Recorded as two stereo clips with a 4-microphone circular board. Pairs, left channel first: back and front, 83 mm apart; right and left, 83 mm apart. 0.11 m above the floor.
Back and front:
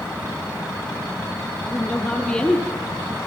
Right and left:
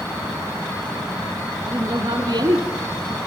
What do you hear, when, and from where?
1.7 s a woman speaking: 110° left, 3.5 m; by 2.8 s 95° left, 3 m